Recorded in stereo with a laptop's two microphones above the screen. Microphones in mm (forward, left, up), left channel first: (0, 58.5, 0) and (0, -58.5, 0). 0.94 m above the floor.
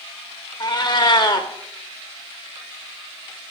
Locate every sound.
0.6 s a cat meowing: 40° left (ahead or behind), 0.7 m